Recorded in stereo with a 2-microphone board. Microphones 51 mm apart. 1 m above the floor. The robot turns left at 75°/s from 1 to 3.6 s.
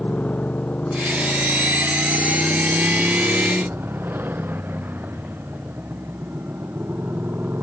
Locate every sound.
0.0 s a motorcycle: 30° left (ahead or behind); by 7.6 s 45° right (ahead or behind)